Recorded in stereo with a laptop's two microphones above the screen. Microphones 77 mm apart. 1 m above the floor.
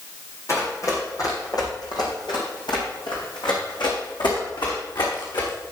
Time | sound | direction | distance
0.5 | running footsteps | 40° left (ahead or behind) | 3.5 m